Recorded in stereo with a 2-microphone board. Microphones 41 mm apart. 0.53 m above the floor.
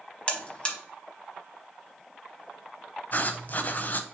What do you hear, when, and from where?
0.3 s a buzzer: 25° left (ahead or behind), 0.8 m
3.1 s writing: 45° left (ahead or behind), 0.5 m